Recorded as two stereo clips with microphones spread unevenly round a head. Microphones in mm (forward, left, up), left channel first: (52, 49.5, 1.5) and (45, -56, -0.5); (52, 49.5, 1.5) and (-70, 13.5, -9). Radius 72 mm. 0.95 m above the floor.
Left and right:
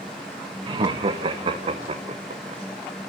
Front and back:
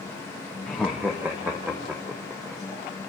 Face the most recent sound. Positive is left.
turn(degrees=-85)